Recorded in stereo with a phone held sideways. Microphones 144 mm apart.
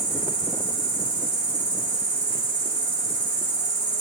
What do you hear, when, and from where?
0.0 s an insect: 60° left (ahead or behind), 2.5 m